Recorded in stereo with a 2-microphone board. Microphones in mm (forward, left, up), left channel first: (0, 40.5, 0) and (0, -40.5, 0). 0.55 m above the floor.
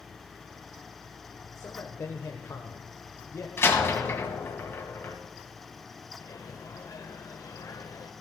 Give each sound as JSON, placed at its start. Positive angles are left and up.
{"t": 1.6, "sound": "a man speaking", "side_deg": 40, "distance_m": 1.6}
{"t": 3.6, "sound": "a door slam", "side_deg": 30, "distance_m": 2.5}
{"t": 6.2, "sound": "a microwave", "side_deg": 45, "distance_m": 1.3}